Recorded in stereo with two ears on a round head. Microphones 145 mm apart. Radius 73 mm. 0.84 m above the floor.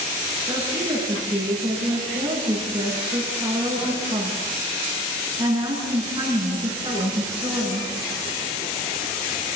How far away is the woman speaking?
About 8.5 m.